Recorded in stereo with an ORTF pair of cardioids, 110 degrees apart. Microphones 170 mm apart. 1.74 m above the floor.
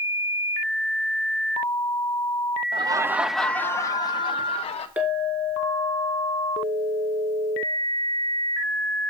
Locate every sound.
2.7 s laughter: 30° right, 0.7 m; by 4.9 s 35° left, 1.6 m
5.0 s a clink: 10° right, 4 m